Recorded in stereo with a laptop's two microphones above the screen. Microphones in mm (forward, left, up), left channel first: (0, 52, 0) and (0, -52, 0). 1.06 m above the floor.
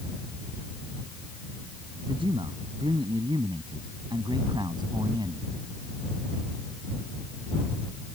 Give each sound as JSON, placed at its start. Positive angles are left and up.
{"t": 2.1, "sound": "a man speaking", "side_deg": -60}